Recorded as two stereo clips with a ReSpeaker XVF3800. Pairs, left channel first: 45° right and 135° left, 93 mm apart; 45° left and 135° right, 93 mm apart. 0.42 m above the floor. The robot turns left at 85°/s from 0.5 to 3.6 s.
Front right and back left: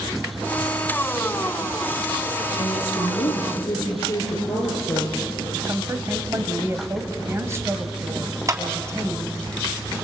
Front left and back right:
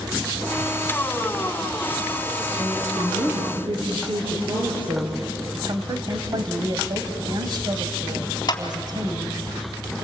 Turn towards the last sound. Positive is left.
turn(degrees=85)